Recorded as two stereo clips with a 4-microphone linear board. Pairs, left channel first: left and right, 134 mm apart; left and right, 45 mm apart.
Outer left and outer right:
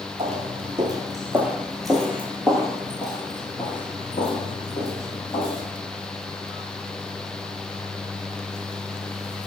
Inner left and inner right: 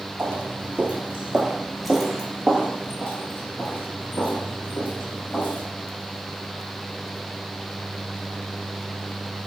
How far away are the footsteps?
About 1.0 m.